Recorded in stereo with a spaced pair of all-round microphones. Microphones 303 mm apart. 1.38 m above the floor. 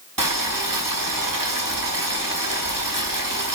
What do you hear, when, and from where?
0.2 s boiling: 80° right, 2 m